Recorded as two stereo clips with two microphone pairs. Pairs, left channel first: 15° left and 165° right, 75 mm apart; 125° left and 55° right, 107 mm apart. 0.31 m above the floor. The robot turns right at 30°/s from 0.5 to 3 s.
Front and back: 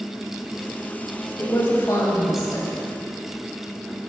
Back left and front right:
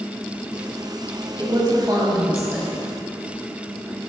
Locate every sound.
1.4 s a woman speaking: 35° right, 1.2 m; by 2.8 s 10° left, 1.2 m